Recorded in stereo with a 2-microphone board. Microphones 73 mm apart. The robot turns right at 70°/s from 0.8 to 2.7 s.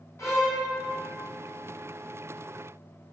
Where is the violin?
40° left (ahead or behind), 1.3 m.